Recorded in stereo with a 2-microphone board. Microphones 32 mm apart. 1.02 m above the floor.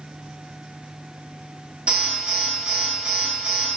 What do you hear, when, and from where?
1.9 s an alarm: 40° right (ahead or behind), 3 m